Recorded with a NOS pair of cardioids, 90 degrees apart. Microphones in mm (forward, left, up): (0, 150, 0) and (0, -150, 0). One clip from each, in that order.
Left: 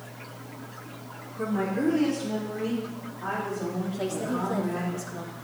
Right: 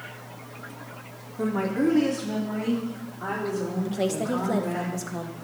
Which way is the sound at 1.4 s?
30° right.